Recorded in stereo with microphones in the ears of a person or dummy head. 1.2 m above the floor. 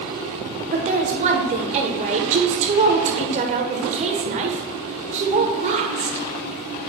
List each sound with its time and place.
0.7 s a woman speaking: 30° right (ahead or behind), 0.9 m